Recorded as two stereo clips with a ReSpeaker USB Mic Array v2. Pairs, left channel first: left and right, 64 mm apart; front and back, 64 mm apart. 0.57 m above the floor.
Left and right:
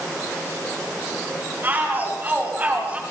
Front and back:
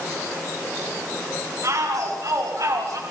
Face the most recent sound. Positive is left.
turn(degrees=-155)